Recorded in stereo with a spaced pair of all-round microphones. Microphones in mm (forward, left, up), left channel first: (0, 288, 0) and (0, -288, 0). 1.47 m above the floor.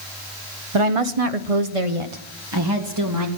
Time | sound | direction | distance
0.7 | a woman speaking | 55° right (ahead or behind) | 0.9 m